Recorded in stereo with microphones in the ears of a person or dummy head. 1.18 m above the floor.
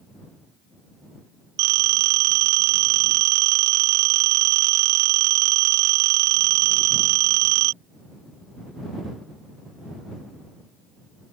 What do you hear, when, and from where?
1.6 s a phone ringing: 80° right